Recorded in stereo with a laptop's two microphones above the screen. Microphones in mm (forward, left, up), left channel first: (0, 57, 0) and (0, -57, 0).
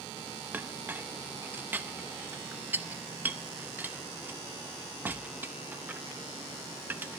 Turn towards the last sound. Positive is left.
turn(degrees=-15)  # may be behind; listen again after turning